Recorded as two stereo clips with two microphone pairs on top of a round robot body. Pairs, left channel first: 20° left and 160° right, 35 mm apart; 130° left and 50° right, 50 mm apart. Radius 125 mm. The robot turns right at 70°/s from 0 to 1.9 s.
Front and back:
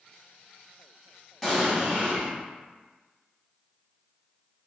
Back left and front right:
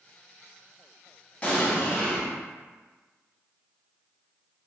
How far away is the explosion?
About 1.4 m.